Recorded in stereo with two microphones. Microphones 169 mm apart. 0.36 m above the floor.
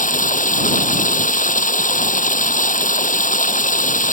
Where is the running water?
50° left (ahead or behind).